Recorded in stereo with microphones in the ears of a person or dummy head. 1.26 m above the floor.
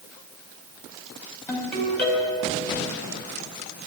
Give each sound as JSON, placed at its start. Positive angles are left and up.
{"t": 1.5, "sound": "a ringtone", "side_deg": 10, "distance_m": 3.5}